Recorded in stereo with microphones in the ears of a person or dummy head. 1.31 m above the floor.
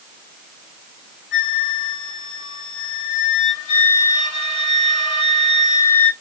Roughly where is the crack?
I don't hear a crack.